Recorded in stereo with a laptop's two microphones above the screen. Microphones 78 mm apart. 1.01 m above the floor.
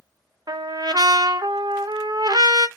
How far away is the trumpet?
About 0.7 m.